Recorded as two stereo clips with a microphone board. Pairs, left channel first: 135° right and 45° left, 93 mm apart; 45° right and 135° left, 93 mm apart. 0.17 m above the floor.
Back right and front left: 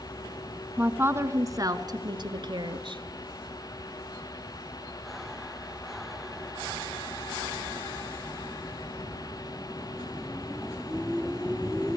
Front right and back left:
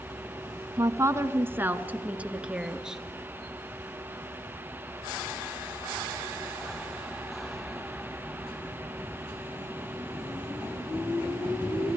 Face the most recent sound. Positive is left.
turn(degrees=50)